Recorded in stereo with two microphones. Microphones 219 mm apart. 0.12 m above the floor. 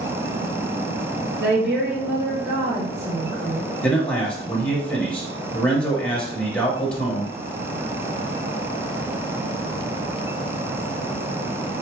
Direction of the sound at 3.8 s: 5° left (ahead or behind).